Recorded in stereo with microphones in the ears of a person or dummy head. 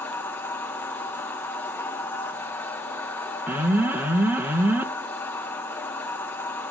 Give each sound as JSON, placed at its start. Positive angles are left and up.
{"t": 0.0, "sound": "a machine running", "side_deg": 15, "distance_m": 1.2}
{"t": 3.5, "sound": "an alarm", "side_deg": -10, "distance_m": 0.5}